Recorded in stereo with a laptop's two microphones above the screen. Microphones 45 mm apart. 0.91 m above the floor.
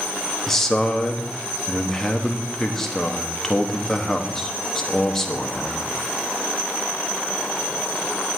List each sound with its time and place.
0.5 s a man speaking: 10° left (ahead or behind), 1.1 m